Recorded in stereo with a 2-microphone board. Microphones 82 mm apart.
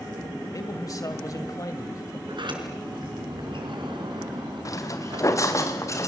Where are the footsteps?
45° left (ahead or behind), 2.5 m; by 6.1 s 35° left (ahead or behind), 3.5 m.